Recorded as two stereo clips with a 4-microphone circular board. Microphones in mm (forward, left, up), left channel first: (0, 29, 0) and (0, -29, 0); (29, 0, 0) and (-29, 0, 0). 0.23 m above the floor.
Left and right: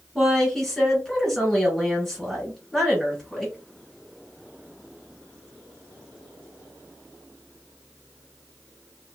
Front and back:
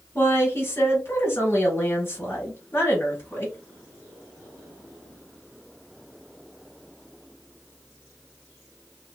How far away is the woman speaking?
About 2 m.